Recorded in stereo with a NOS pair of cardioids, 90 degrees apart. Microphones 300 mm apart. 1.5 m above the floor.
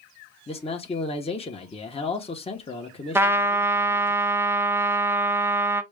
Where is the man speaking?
20° left, 1.0 m.